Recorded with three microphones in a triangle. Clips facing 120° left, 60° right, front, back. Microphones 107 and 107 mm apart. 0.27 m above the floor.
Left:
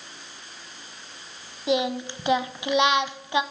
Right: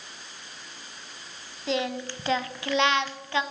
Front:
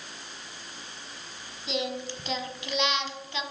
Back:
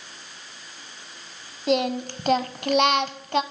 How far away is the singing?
About 0.7 m.